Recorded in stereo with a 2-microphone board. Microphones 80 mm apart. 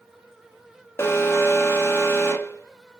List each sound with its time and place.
1.0 s an alarm: 30° left (ahead or behind), 0.6 m